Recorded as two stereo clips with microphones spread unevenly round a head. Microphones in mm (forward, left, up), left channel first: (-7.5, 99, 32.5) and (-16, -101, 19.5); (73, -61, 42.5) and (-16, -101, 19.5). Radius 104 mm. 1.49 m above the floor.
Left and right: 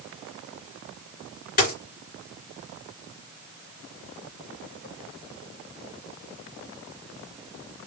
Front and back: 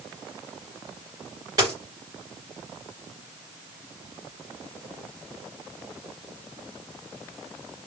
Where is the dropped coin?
125° left, 2.5 m.